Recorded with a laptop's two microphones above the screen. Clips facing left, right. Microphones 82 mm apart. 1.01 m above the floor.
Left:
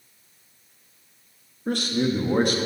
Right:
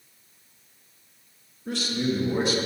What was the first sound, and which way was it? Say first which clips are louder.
A man speaking: left 3 dB; 50° left (ahead or behind).